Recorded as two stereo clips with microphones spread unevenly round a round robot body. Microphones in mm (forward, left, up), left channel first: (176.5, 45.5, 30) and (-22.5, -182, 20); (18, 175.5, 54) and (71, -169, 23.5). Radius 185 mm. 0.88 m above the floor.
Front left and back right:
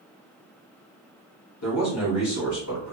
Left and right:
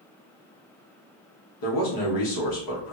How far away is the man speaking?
About 1.2 m.